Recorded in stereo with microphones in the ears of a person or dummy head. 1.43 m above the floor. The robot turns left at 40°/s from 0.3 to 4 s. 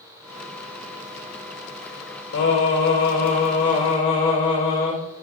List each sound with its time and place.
2.3 s singing: 100° left, 4 m; by 5.0 s 35° left, 4 m